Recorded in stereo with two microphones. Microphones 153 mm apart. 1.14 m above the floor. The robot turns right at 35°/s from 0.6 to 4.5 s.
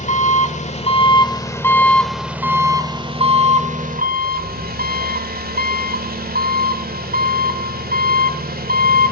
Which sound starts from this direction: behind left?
An engine running, at 0.0 s.